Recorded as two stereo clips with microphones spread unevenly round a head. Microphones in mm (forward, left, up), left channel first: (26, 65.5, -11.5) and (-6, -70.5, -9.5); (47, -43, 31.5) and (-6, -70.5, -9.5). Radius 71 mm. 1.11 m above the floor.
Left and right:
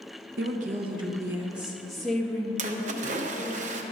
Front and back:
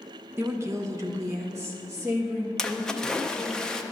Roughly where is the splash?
Ahead right.